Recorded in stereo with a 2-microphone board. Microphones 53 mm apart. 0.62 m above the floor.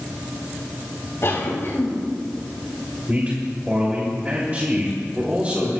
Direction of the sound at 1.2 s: 55° left (ahead or behind).